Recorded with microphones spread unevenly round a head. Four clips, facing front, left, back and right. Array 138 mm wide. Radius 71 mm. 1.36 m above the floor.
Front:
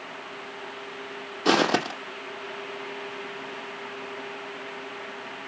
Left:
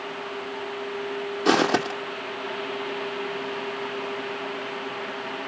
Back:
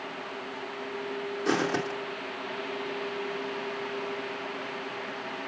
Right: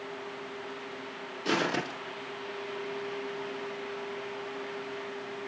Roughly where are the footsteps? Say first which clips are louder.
Left 9 dB, front 6 dB; ahead left.